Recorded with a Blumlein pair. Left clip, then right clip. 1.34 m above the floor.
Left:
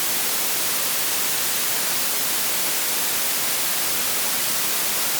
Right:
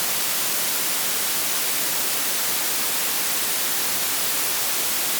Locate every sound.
Only background noise.